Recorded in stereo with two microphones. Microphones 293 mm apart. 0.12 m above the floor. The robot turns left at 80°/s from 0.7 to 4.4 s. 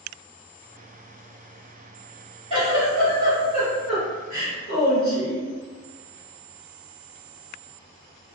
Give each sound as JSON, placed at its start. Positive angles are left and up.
{"t": 2.5, "sound": "a giggle", "azimuth_deg": -140, "distance_m": 1.9}